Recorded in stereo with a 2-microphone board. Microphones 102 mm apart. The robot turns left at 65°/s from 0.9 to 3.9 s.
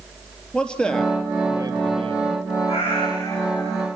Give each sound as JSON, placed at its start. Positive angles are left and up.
{"t": 0.5, "sound": "a man speaking", "azimuth_deg": 10, "distance_m": 3.0}
{"t": 2.7, "sound": "a cat meowing", "azimuth_deg": 75, "distance_m": 8.0}